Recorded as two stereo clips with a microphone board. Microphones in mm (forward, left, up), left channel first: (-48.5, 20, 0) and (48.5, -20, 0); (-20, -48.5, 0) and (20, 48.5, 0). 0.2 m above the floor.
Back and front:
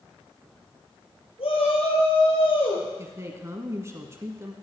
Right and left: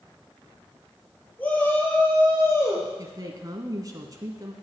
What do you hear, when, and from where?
1.4 s a shout: 175° left, 5 m; by 2.9 s 175° right, 4.5 m
3.0 s a woman speaking: 30° left, 1.6 m